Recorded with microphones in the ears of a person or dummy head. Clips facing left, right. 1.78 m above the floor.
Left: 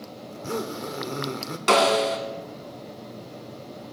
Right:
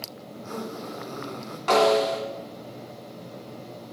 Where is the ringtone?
No ringtone in this recording.